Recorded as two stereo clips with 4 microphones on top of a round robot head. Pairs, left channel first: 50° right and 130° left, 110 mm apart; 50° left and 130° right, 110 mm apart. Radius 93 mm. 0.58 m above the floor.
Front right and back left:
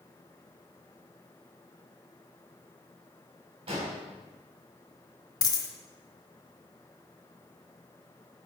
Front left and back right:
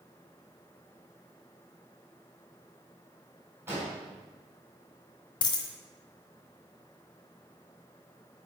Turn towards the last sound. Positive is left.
turn(degrees=5)